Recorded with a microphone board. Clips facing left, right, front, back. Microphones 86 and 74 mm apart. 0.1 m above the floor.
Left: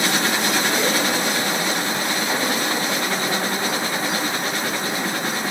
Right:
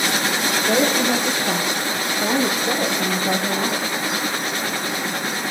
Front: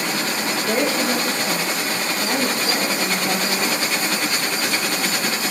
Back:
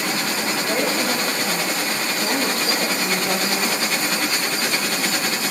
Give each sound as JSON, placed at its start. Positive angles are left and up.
{"t": 0.7, "sound": "a woman speaking", "azimuth_deg": -65, "distance_m": 5.0}